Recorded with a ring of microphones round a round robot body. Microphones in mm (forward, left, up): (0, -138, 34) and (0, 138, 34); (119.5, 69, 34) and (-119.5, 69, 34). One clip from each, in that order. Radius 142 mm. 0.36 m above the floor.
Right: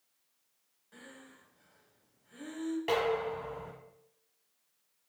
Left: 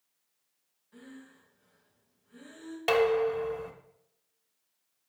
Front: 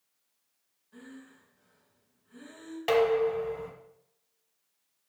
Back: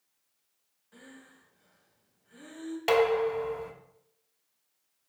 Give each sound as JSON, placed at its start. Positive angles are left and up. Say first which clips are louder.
{"t": 0.9, "sound": "breathing", "louder": "left 1 dB, front 2 dB", "azimuth_deg": -140, "distance_m": 2.0}
{"t": 2.9, "sound": "dishes clattering", "louder": "left 7 dB, even", "azimuth_deg": 125, "distance_m": 1.6}